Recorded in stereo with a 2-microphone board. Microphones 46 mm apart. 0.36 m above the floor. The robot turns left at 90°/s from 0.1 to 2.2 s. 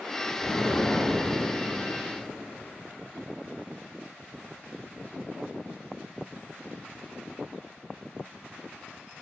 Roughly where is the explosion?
Left.